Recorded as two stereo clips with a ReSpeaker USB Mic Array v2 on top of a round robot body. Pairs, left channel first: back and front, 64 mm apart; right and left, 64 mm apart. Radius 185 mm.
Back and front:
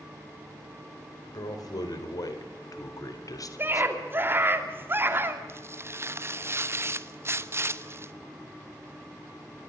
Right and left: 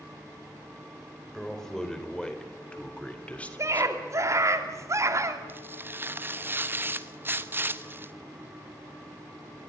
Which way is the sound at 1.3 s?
170° right.